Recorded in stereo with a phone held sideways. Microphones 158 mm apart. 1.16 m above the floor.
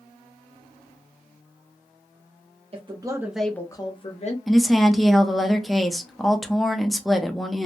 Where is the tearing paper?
No tearing paper in this recording.